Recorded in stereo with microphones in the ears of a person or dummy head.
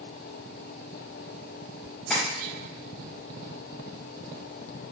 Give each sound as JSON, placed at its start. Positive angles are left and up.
{"t": 2.1, "sound": "tapping", "side_deg": 5, "distance_m": 0.8}